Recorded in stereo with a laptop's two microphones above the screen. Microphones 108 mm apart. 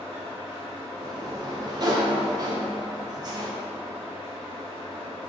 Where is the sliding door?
40° right (ahead or behind), 0.6 m.